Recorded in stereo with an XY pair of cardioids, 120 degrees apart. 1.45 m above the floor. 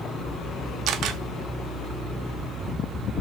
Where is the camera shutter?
65° right, 0.8 m.